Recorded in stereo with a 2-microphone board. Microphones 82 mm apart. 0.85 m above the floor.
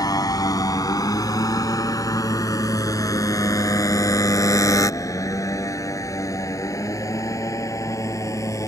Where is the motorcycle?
50° left (ahead or behind); by 8.7 s 40° left (ahead or behind).